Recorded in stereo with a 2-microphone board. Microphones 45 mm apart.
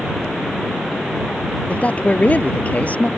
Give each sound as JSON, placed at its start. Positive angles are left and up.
{"t": 1.7, "sound": "a man speaking", "side_deg": 35}